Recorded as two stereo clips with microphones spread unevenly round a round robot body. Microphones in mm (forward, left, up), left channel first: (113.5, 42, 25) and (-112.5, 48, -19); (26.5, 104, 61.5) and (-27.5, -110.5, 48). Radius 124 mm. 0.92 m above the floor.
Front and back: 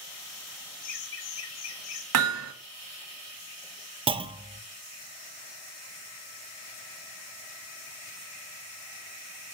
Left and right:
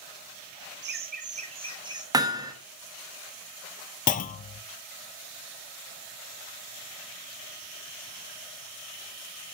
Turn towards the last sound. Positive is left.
turn(degrees=125)